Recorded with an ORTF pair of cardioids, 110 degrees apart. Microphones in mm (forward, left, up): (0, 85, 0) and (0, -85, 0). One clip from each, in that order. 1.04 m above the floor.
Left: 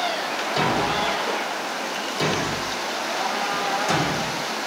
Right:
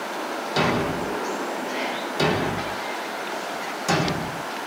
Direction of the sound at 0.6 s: 30° right.